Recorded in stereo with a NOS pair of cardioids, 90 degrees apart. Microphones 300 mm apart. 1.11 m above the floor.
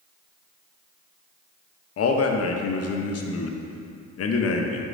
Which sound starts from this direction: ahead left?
A man speaking, at 2.0 s.